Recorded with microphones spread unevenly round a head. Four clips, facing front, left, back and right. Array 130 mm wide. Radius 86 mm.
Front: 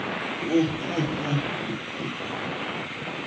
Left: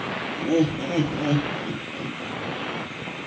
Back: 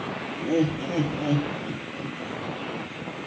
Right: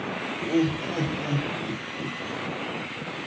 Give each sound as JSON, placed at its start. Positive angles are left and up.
{"t": 0.4, "sound": "laughter", "azimuth_deg": 85, "distance_m": 1.7}